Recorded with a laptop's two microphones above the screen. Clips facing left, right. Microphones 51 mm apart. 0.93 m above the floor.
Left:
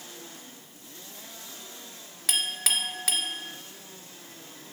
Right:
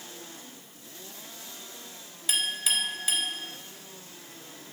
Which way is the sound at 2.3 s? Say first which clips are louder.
Even; 80° left.